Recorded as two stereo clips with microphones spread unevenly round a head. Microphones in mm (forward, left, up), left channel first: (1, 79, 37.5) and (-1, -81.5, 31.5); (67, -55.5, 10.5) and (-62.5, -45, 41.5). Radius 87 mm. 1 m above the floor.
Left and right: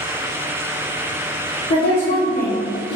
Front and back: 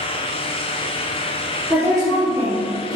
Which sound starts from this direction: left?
A woman speaking, at 1.7 s.